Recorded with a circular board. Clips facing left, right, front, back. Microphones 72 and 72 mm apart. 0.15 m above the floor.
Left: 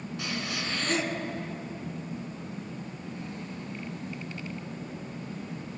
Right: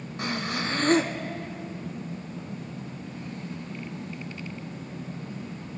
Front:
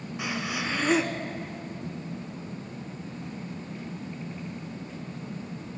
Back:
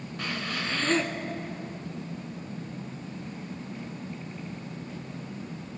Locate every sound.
0.2 s breathing: 75° right, 0.7 m